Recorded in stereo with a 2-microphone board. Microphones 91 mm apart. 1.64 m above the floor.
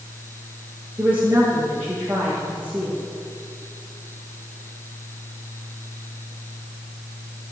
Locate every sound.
1.0 s a woman speaking: 20° right (ahead or behind), 2.5 m